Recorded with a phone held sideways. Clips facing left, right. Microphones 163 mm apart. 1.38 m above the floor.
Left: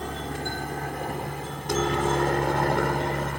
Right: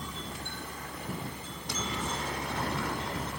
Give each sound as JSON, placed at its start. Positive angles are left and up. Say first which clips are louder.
{"t": 0.0, "sound": "a helicopter", "louder": "left 9 dB", "side_deg": 65}